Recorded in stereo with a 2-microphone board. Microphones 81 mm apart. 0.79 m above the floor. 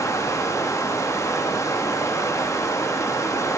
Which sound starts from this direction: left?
Running water, at 0.0 s.